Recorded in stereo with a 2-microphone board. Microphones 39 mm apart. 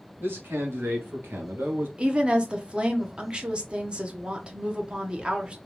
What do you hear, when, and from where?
0.2 s a man speaking: 70° right (ahead or behind), 2.5 m; by 1.9 s 50° right (ahead or behind), 1.2 m
2.0 s a woman speaking: 25° right (ahead or behind), 0.9 m